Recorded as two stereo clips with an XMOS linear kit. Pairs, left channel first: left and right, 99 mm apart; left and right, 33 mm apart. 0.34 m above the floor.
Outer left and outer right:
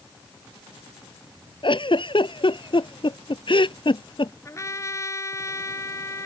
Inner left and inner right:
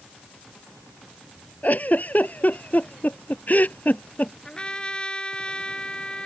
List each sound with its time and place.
1.6 s a giggle: 50° left (ahead or behind)
4.5 s a trumpet: 30° left (ahead or behind)